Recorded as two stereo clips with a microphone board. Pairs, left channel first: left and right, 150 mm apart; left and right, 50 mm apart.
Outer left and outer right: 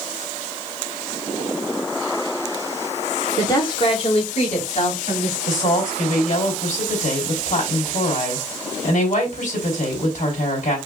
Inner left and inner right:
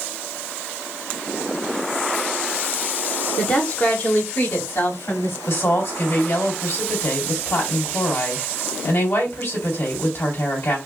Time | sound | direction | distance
3.4 | a woman speaking | 25° left (ahead or behind) | 1.4 m
5.5 | a woman speaking | 65° left (ahead or behind) | 3 m